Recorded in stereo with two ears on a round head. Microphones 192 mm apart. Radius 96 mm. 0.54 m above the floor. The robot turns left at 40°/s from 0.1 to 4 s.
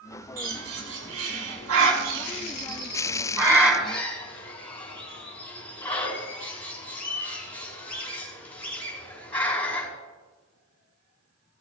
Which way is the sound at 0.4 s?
40° right (ahead or behind).